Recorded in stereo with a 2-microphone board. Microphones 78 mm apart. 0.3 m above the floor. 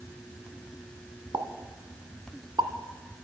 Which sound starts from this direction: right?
A pop, at 1.3 s.